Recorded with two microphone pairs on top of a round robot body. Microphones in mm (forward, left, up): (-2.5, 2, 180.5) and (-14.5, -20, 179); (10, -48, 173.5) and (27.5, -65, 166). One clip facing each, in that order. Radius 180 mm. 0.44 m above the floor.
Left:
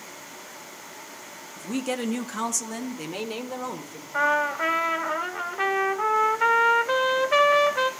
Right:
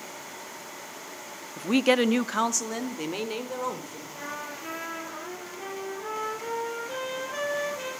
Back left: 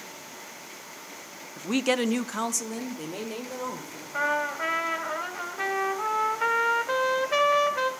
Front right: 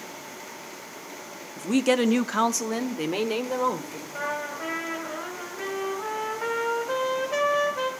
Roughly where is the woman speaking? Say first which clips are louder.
Right 7 dB, front right 3 dB; behind right.